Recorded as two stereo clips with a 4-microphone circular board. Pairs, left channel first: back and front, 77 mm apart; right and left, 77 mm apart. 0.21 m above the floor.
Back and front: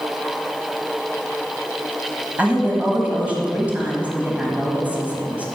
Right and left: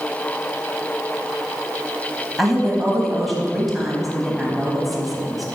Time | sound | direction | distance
2.4 | a woman speaking | straight ahead | 1.3 m